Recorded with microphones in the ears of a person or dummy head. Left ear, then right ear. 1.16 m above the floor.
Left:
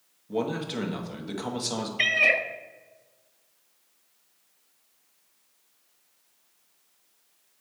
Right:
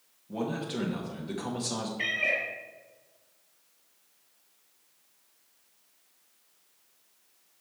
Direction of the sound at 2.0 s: 55° left (ahead or behind).